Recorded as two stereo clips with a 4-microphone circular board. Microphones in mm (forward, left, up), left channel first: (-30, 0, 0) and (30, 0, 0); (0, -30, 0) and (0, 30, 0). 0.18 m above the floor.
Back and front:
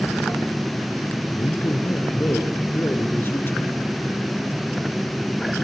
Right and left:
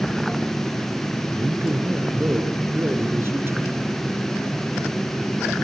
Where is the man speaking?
135° left, 3 m.